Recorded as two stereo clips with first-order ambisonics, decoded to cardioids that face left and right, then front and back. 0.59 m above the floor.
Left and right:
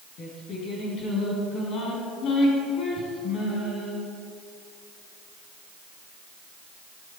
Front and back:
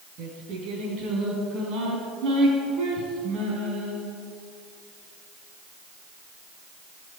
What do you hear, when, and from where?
0.2 s singing: 135° left, 4.5 m